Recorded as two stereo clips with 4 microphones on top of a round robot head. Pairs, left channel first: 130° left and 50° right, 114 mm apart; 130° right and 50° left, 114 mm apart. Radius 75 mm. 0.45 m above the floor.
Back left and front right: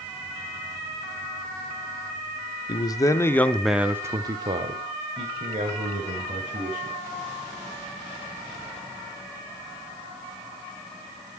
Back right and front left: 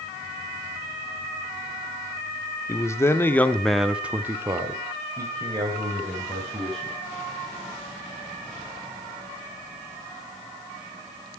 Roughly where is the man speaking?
Behind.